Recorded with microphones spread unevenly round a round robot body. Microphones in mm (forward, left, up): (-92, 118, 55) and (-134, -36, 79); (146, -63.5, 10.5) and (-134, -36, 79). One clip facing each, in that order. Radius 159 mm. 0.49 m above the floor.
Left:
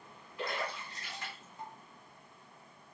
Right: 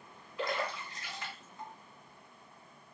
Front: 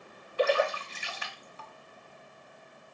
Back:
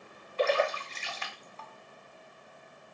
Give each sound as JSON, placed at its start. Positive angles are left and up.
{"t": 0.4, "sound": "a splash", "azimuth_deg": -85, "distance_m": 0.6}